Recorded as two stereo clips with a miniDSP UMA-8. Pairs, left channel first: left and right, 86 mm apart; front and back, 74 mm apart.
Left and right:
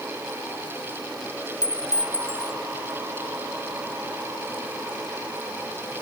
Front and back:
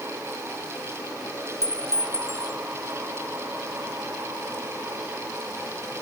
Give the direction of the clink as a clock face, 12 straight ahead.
11 o'clock.